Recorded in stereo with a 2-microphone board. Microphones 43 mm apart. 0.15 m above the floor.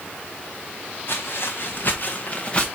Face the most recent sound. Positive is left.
turn(degrees=20)  # may be behind; listen again after turning